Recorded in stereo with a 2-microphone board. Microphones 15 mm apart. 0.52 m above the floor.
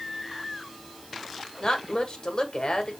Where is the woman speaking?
60° left (ahead or behind), 1.6 m.